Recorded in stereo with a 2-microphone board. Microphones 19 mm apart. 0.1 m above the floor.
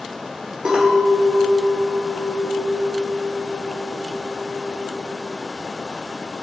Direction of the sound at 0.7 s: 50° right (ahead or behind).